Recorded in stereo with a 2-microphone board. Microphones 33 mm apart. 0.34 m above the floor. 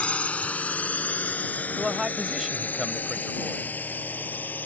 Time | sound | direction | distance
0.0 | a drone | 40° left (ahead or behind) | ?
1.8 | a man speaking | 15° right (ahead or behind) | ?